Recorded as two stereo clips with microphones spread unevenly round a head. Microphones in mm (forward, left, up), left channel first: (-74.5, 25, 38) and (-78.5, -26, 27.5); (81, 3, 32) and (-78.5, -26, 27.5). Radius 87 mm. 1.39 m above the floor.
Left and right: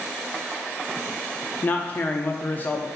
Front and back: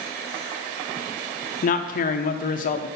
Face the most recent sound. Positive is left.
turn(degrees=25)